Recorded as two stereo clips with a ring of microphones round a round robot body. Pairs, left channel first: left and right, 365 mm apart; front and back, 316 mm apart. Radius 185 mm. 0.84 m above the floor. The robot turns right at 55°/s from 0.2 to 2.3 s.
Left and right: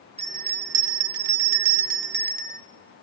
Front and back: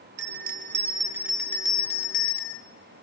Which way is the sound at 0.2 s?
155° right.